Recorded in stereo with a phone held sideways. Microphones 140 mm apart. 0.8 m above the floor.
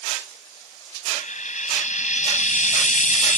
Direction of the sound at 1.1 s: 60° left (ahead or behind).